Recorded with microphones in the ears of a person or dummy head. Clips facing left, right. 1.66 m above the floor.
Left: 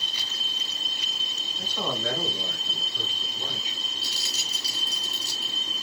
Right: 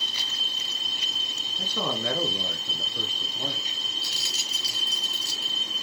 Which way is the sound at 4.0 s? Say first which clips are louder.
Left 1 dB; 30° left (ahead or behind).